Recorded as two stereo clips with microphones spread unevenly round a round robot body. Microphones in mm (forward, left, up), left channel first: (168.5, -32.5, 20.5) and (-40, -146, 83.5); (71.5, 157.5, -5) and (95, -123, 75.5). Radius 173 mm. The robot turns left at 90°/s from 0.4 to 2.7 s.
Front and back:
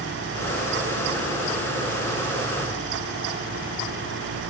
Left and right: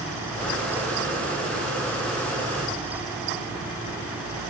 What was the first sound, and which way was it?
Only background noise.